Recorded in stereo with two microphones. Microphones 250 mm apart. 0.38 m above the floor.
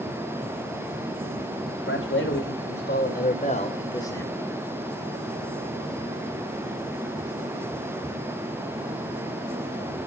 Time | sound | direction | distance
1.9 | a man speaking | 55° left (ahead or behind) | 2.5 m